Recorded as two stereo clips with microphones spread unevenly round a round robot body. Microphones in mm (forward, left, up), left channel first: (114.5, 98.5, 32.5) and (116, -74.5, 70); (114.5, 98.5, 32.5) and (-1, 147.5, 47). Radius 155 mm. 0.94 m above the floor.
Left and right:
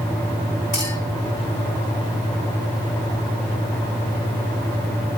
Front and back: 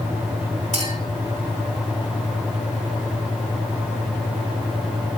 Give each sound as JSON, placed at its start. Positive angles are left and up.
{"t": 0.7, "sound": "a clink", "azimuth_deg": -150, "distance_m": 6.0}